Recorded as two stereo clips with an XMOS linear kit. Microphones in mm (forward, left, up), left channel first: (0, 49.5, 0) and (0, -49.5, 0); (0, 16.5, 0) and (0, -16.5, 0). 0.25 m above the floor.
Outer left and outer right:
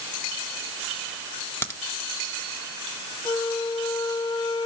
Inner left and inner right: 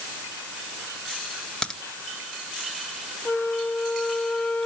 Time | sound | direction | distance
1.6 | a crack | 20° left (ahead or behind) | 1.4 m
3.2 | a flute | 45° left (ahead or behind) | 1.3 m